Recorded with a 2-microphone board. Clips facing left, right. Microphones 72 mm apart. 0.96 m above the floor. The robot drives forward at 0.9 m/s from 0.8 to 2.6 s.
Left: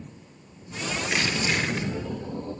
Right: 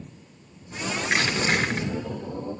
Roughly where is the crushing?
Right.